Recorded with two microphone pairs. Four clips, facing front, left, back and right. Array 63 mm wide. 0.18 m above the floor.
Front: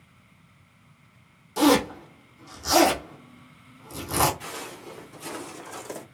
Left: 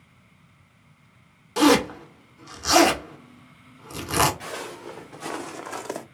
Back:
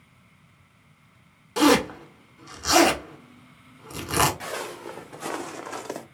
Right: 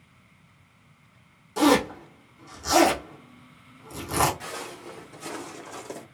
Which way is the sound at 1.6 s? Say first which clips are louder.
Left 2 dB, back 1 dB; 140° left.